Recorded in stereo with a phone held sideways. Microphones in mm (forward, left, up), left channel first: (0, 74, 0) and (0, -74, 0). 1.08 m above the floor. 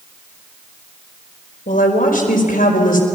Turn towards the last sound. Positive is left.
turn(degrees=75)  # may be behind; listen again after turning